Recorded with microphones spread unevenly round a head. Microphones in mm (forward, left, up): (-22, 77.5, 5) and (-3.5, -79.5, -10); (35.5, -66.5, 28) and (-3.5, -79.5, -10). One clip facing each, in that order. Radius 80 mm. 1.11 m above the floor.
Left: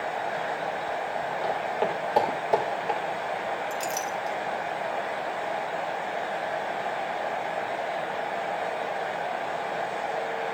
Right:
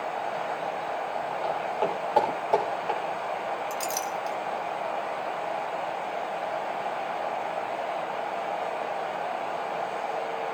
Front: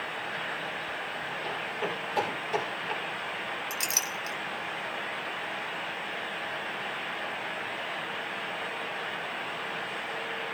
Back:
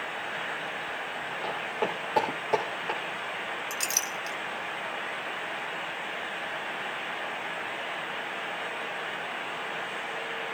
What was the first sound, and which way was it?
Footsteps, 155° left.